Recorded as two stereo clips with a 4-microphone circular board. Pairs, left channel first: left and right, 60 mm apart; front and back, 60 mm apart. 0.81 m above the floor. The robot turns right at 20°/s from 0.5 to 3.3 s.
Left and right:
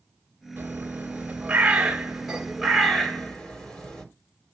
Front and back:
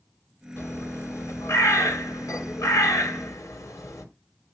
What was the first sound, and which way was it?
A bird, 40° right.